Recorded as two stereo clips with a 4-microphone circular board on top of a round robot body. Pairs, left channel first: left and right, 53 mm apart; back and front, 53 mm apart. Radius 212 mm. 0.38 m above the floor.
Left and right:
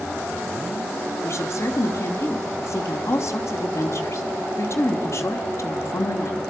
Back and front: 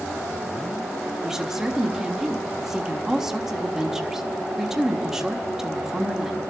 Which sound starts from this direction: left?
A woman speaking, at 1.2 s.